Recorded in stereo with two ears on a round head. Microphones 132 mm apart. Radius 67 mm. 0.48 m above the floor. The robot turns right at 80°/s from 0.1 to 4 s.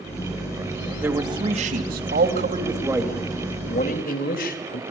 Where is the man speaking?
165° right, 2.5 m; by 4.8 s 75° left, 2.5 m.